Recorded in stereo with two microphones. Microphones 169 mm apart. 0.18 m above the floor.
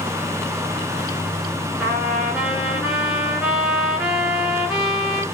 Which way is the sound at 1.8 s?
5° right (ahead or behind).